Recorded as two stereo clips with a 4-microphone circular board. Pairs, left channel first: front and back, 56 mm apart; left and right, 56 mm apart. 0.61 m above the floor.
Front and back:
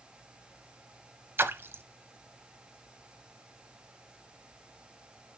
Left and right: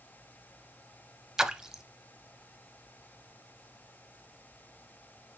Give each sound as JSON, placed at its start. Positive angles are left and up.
{"t": 1.4, "sound": "a splash", "azimuth_deg": -165, "distance_m": 0.5}